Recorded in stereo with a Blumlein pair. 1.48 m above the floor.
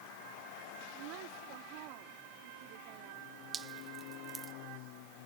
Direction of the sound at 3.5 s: 20° right.